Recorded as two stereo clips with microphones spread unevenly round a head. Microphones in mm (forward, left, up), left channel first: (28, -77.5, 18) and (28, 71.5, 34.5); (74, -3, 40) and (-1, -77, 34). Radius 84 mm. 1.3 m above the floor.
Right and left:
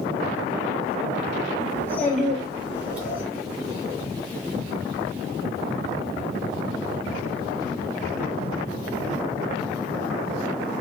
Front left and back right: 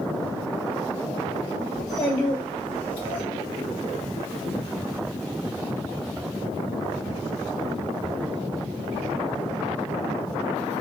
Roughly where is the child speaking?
Ahead.